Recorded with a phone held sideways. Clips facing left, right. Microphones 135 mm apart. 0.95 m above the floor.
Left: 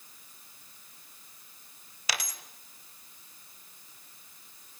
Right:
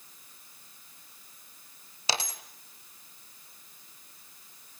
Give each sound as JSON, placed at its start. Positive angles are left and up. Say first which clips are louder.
{"t": 2.1, "sound": "a dropped coin", "louder": "right 4 dB", "side_deg": -25, "distance_m": 1.1}